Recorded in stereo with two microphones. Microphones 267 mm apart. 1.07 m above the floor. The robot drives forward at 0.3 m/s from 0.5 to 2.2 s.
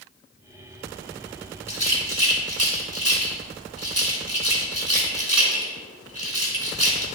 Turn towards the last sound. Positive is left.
turn(degrees=-65)  # may be behind; listen again after turning